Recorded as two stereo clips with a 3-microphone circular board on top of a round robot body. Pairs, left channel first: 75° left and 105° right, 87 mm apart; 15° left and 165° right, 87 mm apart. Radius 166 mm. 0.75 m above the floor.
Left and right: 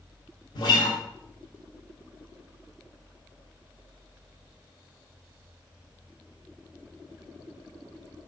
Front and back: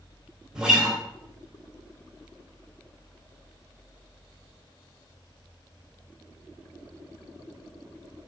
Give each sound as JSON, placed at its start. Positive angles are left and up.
{"t": 0.6, "sound": "a guitar", "azimuth_deg": 115, "distance_m": 0.5}